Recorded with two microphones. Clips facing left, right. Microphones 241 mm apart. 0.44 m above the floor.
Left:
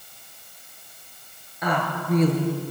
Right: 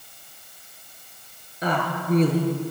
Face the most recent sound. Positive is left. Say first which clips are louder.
# right 1 dB
turn(degrees=-30)  # may be behind; listen again after turning